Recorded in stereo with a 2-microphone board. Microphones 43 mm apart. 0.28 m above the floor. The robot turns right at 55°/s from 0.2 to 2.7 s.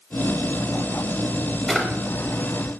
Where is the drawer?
5° left (ahead or behind), 0.6 m; by 1.9 s 10° left (ahead or behind), 0.6 m.